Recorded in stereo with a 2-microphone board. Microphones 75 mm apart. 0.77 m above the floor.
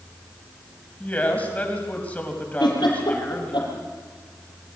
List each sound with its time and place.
1.0 s a woman speaking: 20° left (ahead or behind), 4.5 m
2.6 s a giggle: 85° left, 6 m